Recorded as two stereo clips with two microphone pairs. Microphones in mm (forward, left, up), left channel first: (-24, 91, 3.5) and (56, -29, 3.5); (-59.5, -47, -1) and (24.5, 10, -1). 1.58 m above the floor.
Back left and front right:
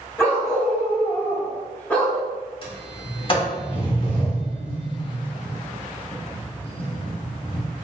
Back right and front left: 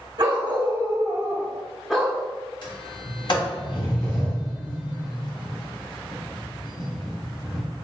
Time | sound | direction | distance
0.2 | a dog barking | 55° left | 1.7 m
2.6 | a sliding door | 175° left | 1.3 m